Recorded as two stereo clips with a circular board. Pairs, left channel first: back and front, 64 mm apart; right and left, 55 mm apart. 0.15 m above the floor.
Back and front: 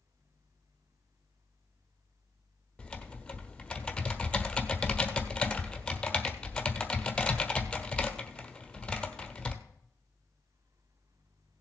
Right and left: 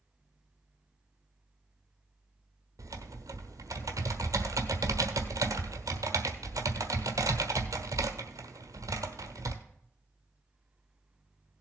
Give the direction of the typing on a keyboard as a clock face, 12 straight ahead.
9 o'clock.